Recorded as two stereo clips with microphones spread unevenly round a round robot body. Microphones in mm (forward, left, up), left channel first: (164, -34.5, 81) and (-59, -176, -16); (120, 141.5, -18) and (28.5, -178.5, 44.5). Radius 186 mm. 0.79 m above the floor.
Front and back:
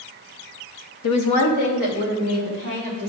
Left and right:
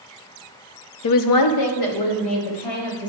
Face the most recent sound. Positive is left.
turn(degrees=80)